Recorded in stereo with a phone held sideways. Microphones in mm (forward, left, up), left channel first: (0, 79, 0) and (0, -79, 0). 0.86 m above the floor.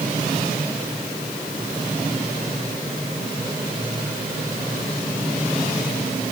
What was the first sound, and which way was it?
Only background noise.